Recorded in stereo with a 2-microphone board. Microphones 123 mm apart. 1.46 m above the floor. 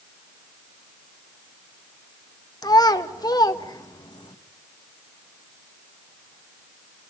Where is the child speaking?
30° left (ahead or behind), 1.3 m.